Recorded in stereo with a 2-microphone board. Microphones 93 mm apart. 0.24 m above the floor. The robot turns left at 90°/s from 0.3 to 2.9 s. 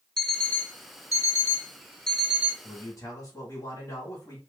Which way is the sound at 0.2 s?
170° left.